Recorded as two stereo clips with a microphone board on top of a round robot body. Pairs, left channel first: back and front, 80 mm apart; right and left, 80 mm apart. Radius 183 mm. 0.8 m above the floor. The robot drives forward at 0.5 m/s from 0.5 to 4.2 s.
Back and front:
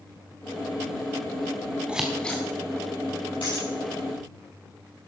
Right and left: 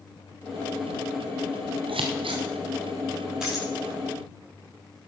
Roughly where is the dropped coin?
Behind.